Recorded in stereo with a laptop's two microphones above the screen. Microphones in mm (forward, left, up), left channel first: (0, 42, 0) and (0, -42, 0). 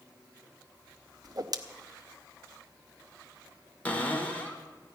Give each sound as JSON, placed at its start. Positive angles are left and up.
{"t": 1.2, "sound": "a whoosh", "side_deg": -50, "distance_m": 0.6}
{"t": 3.9, "sound": "a cupboard door", "side_deg": 20, "distance_m": 1.3}